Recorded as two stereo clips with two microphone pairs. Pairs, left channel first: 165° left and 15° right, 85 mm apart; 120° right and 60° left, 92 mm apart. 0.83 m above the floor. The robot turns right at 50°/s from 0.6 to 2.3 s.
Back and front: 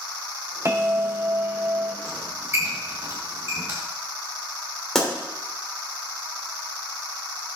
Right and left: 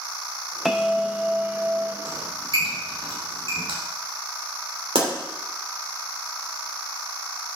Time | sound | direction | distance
0.7 | a bell | 20° right | 0.8 m
2.0 | a squeak | 40° left | 4.5 m
5.0 | a pop | 80° left | 3 m